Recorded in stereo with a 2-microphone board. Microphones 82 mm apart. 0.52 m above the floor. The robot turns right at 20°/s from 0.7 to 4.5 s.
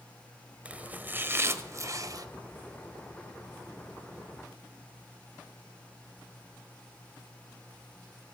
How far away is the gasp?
No gasp in this recording.